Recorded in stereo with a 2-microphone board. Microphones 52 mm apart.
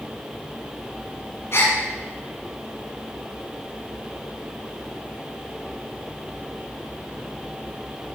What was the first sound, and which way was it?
A gasp, 50° left (ahead or behind).